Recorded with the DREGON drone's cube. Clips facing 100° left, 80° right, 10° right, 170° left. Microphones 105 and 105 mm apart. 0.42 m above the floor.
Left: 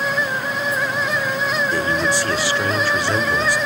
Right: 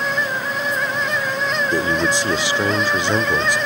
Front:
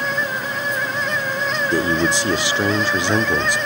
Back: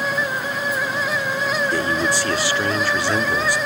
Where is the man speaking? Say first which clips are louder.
Right 1 dB, front 2 dB; 50° right, 0.8 m.